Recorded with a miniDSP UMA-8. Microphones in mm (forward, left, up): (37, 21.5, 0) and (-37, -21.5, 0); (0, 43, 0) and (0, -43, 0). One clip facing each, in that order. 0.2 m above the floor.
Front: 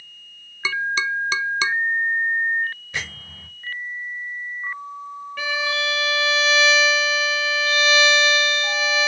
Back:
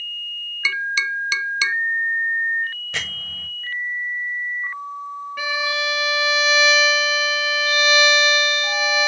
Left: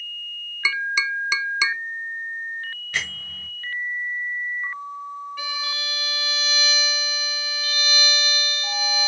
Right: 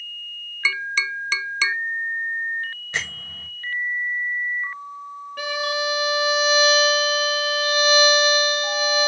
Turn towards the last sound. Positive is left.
turn(degrees=-75)